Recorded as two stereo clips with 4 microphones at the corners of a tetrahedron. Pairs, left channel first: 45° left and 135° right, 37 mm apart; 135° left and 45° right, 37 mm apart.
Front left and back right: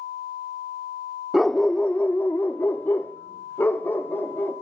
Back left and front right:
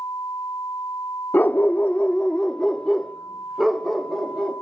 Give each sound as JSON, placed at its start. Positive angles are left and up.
{"t": 1.3, "sound": "a dog barking", "azimuth_deg": 140, "distance_m": 0.8}